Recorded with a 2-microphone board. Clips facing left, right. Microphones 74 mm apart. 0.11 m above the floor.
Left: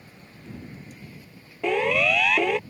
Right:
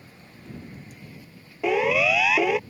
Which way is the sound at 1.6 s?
5° right (ahead or behind).